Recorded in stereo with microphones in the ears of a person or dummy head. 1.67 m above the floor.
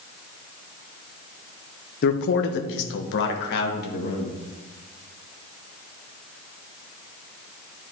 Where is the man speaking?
45° left (ahead or behind), 0.8 m; by 4.3 s 65° left (ahead or behind), 2.5 m.